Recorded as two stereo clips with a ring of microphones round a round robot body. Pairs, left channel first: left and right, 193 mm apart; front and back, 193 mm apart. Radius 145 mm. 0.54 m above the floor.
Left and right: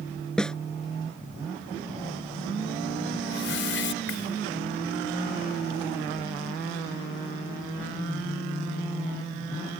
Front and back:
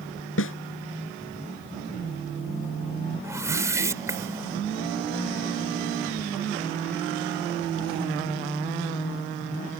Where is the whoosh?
105° left.